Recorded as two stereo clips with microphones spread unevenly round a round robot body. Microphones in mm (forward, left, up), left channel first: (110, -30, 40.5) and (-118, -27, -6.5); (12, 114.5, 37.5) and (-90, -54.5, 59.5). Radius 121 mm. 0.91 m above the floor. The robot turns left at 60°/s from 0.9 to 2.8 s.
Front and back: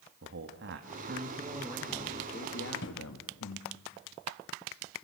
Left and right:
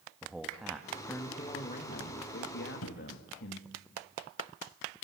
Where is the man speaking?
150° left, 1.5 m; by 3.7 s 35° left, 1.5 m.